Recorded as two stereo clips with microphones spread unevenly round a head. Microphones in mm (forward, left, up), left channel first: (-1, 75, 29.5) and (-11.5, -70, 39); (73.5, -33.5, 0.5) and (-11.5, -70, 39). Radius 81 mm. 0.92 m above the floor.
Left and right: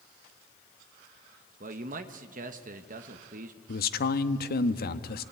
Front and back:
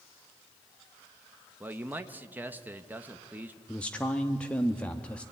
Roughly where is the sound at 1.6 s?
Right.